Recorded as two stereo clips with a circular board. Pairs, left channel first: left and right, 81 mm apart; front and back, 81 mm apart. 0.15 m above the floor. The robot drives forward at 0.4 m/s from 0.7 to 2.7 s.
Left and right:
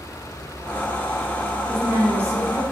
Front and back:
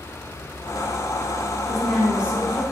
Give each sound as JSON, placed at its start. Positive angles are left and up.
{"t": 1.7, "sound": "a woman speaking", "azimuth_deg": -95, "distance_m": 1.2}